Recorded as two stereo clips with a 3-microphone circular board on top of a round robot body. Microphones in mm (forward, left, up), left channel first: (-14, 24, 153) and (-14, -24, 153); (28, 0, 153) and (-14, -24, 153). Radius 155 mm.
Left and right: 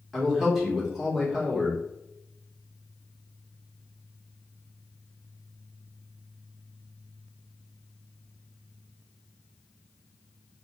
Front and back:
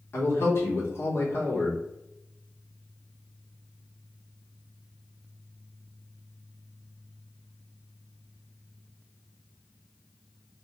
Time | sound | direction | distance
0.1 | a man speaking | straight ahead | 2 m